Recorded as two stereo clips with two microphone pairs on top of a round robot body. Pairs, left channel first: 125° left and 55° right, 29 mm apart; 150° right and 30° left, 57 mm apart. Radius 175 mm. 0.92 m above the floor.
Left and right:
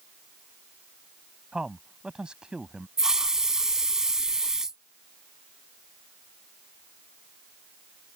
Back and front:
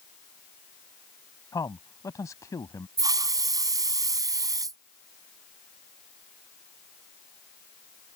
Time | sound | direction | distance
1.5 | a man speaking | 120° right | ?
3.0 | a hiss | 10° left | ?